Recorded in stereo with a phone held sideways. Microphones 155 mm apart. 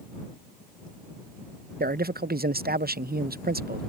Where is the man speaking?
80° right.